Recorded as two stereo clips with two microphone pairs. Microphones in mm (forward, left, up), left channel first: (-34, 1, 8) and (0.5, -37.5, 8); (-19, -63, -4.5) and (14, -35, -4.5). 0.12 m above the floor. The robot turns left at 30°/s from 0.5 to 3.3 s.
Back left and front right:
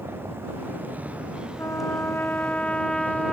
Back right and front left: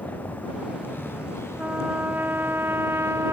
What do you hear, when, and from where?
0.0 s a vehicle: 95° right; by 3.3 s 170° right
1.6 s a trumpet: 95° left; by 3.3 s 45° left